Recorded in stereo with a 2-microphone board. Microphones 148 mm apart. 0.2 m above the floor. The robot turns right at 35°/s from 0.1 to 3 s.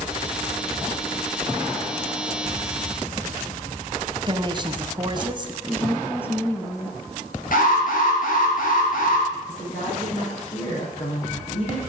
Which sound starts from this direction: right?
A woman speaking, at 4.3 s.